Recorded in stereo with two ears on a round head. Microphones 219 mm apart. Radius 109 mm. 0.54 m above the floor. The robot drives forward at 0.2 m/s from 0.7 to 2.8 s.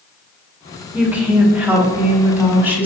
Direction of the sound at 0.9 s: 10° right (ahead or behind).